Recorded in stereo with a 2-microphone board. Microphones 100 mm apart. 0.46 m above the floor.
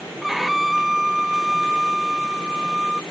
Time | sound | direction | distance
0.2 | a violin | centre (ahead or behind) | ?